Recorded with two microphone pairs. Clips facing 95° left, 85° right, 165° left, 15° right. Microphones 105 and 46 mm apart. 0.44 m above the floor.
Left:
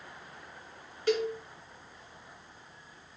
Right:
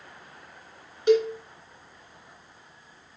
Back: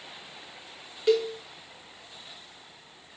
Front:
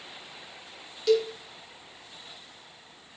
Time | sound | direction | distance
1.1 | a cowbell | 145° right | 1.5 m